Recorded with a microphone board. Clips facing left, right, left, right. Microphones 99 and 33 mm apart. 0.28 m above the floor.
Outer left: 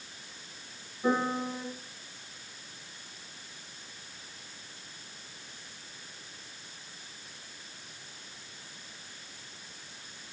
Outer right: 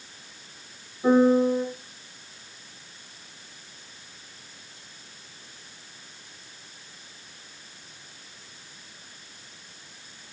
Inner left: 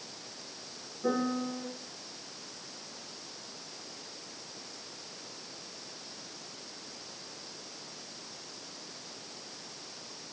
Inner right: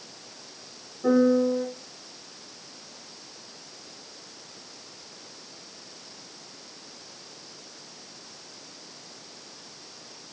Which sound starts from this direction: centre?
A piano, at 1.0 s.